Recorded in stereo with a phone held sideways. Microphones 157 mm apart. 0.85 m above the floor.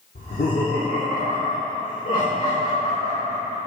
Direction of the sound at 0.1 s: 70° left (ahead or behind).